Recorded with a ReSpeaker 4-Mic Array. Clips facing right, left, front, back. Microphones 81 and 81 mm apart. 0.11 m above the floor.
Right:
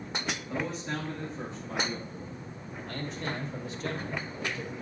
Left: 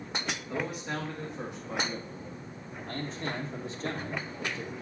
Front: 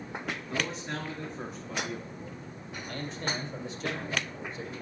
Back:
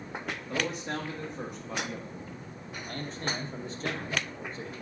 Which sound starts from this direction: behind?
A man speaking, at 0.5 s.